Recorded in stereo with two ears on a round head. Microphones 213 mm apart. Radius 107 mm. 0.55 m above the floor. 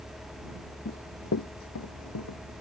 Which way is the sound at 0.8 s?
40° left (ahead or behind).